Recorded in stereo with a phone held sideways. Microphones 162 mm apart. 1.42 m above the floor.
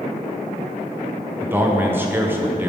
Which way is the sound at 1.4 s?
15° right (ahead or behind).